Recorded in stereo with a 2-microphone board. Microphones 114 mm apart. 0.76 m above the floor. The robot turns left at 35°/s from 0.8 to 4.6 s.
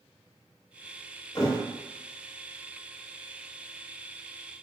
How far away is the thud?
About 0.5 m.